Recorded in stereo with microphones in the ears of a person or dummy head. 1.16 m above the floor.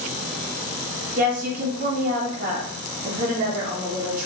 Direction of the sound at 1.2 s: 50° right (ahead or behind).